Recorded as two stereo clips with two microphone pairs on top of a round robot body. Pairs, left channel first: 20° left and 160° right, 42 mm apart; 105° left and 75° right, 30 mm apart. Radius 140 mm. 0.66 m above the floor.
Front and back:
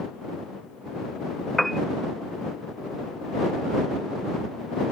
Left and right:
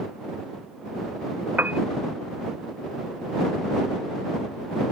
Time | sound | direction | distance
1.6 | a piano | 70° right | ?